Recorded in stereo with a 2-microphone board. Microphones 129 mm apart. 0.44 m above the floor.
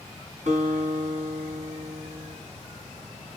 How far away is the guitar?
About 4.5 m.